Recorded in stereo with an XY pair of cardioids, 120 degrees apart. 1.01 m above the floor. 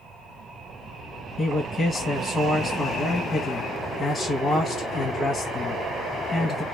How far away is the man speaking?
About 0.9 m.